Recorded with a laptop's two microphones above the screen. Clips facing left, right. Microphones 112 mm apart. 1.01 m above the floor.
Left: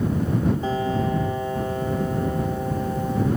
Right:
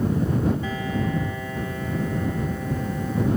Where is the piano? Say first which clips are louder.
Left 4 dB; 35° left (ahead or behind).